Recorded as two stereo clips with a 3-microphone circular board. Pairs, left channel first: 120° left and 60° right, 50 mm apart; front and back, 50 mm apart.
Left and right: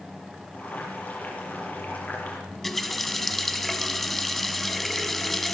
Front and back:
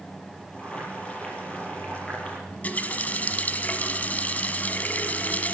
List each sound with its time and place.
0.5 s boiling: 65° left, 5 m
2.5 s a running tap: 35° left, 0.9 m